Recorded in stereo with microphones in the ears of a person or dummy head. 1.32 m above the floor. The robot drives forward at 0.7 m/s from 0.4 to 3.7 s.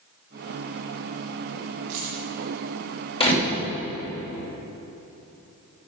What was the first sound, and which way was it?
Keys jangling, 35° right (ahead or behind).